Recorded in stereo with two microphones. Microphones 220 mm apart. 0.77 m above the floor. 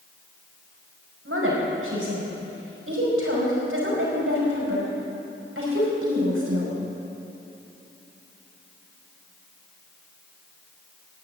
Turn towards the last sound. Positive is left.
turn(degrees=-75)  # may be behind; listen again after turning